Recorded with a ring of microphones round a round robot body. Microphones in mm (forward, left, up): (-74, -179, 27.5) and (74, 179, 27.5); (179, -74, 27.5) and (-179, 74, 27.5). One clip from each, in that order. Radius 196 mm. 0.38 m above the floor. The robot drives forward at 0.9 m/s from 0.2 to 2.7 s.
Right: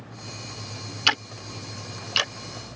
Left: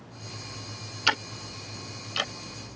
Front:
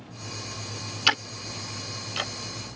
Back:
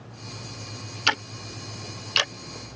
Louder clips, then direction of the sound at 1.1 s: Right 3 dB, front 1 dB; 80° right.